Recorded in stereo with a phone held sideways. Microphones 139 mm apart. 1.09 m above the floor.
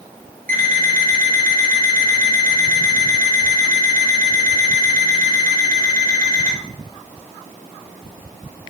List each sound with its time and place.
0.5 s an alarm clock: 75° right (ahead or behind), 2.5 m